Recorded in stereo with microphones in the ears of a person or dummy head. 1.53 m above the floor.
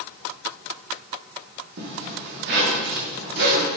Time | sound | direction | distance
1.8 | a zipper | 55° right (ahead or behind) | 3.5 m